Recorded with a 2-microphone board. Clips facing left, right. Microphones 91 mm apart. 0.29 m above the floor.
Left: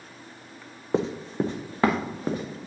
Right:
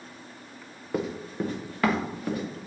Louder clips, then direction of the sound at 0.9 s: Left 4 dB; 25° left (ahead or behind).